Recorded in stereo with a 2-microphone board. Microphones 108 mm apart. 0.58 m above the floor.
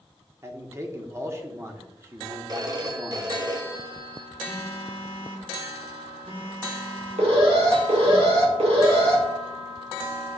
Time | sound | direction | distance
0.4 | a man speaking | 25° right (ahead or behind) | 1.3 m
2.5 | a phone ringing | 35° right (ahead or behind) | 1.2 m
4.5 | a phone buzzing | 55° right (ahead or behind) | 1.7 m
7.2 | an alarm | 65° right (ahead or behind) | 2 m